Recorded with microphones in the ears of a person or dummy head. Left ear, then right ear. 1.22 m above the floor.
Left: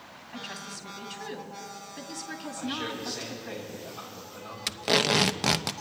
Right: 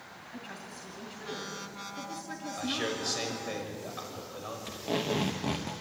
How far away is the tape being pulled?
About 0.9 m.